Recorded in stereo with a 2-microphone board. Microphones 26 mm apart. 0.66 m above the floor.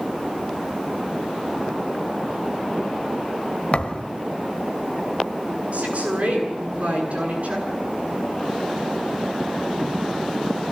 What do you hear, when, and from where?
3.7 s a thud: 45° left (ahead or behind), 1.2 m
5.7 s a woman speaking: 60° right (ahead or behind), 9 m